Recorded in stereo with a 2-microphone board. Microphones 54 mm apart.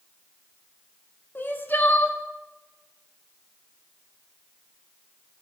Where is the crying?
40° left (ahead or behind), 0.6 m.